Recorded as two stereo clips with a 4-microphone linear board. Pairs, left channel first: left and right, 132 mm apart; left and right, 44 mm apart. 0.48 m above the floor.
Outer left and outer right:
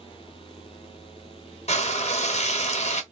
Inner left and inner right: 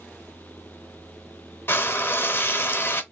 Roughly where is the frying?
Left.